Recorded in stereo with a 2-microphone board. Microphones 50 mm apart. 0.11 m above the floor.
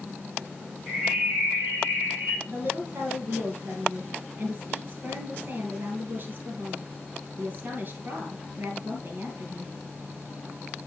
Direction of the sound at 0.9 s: 25° right (ahead or behind).